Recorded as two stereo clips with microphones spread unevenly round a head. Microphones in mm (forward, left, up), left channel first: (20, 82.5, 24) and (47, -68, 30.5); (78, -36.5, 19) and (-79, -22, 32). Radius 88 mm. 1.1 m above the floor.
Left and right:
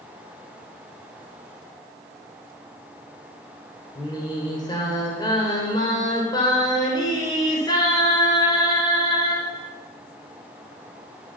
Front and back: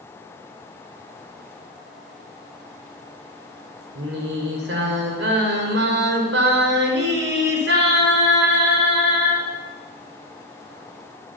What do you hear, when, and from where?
4.0 s singing: 170° left, 5 m